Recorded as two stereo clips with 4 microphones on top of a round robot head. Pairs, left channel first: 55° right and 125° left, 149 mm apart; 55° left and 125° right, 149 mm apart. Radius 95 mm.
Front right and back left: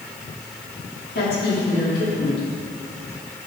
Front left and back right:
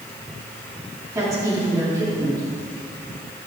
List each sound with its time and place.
1.1 s a woman speaking: 55° right, 3 m